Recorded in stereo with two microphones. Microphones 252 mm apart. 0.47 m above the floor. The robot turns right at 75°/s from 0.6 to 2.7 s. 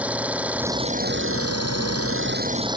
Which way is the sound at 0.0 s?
175° right.